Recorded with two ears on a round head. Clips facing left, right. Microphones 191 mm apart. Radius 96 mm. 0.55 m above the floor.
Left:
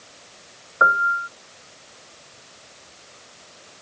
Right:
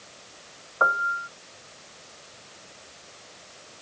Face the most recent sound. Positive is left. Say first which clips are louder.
# left 4 dB
turn(degrees=20)  # may be behind; listen again after turning